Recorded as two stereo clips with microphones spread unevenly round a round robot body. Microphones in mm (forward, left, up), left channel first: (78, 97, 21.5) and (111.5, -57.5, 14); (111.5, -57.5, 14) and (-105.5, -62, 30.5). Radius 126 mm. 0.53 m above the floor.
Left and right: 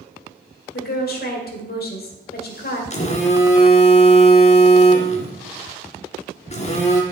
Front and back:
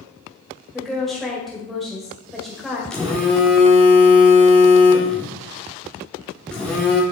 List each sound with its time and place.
0.7 s a woman speaking: 90° left, 1.8 m
2.9 s a phone buzzing: 80° left, 1.6 m